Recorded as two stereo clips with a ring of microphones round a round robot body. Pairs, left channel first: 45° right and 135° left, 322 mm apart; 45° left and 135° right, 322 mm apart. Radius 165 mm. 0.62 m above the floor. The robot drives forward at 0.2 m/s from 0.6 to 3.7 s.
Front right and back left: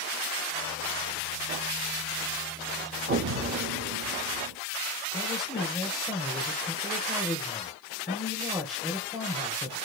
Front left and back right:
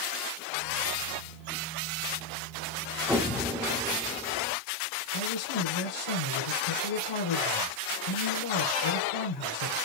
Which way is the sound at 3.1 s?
145° left.